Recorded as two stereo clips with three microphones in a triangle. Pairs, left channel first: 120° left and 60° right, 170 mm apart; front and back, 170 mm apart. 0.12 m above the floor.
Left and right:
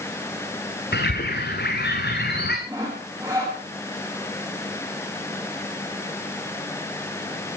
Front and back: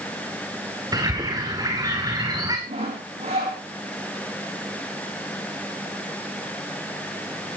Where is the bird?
110° left, 3.5 m.